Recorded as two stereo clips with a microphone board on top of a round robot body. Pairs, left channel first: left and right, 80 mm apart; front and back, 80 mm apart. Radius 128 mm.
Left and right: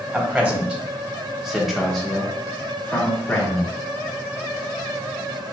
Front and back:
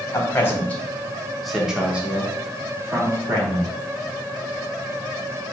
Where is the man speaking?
30° right, 1.3 m; by 3.7 s 155° left, 1.6 m.